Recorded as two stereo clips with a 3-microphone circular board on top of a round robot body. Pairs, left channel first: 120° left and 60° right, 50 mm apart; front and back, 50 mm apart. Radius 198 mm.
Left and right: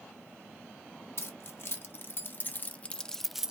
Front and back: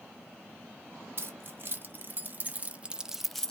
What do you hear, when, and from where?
1.2 s keys jangling: 145° left, 1.4 m; by 3.5 s 30° right, 0.7 m